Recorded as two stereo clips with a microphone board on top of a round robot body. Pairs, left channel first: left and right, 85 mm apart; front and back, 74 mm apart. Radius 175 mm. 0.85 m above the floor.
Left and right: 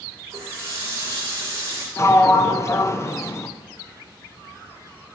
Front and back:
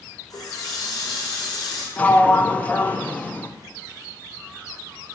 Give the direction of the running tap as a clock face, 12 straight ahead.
1 o'clock.